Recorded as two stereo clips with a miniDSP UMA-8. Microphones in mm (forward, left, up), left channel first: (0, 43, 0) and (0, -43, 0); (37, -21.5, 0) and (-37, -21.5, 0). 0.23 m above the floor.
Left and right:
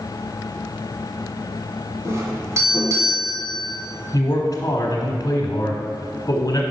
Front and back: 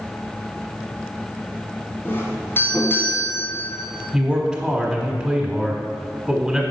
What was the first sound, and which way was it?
A doorbell, 50° right.